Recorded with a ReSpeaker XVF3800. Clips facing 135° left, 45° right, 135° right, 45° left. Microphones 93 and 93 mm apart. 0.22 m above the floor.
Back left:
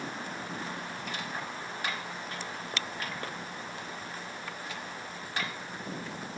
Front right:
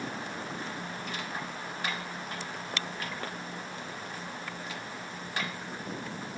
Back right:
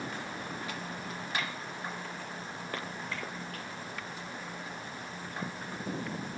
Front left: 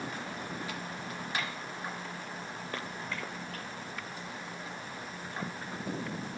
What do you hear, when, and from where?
Only background noise.